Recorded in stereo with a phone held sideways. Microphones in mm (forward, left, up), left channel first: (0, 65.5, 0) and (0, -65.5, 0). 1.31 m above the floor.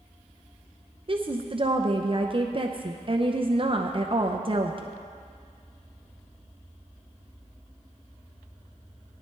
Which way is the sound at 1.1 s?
40° right (ahead or behind).